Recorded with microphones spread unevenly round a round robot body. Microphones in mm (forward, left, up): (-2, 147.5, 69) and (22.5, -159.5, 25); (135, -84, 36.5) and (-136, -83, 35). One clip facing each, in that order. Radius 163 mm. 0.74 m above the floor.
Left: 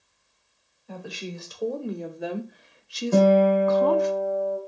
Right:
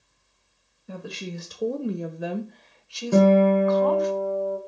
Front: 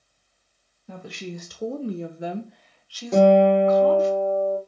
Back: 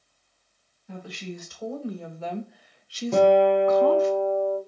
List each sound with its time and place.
0.9 s a woman speaking: 30° right, 1.0 m; by 4.1 s 150° left, 1.1 m
3.1 s a guitar: 80° right, 3.5 m